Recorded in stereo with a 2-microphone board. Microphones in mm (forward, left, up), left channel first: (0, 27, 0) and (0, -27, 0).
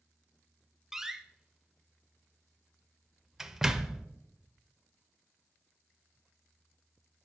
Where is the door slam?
10° right (ahead or behind), 0.6 m.